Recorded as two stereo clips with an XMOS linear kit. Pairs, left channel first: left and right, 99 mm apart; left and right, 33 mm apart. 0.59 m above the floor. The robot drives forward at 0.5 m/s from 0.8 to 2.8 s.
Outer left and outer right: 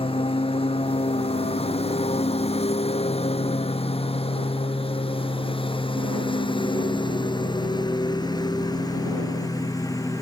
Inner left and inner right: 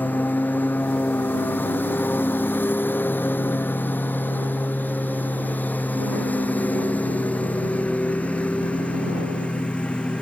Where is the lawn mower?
65° left (ahead or behind); by 10.2 s 35° left (ahead or behind).